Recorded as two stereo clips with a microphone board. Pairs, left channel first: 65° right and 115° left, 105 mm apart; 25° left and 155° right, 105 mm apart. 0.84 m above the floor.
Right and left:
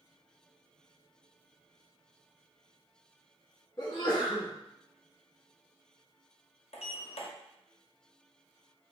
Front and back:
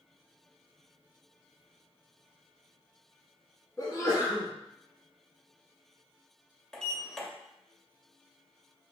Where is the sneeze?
25° right, 1.4 m.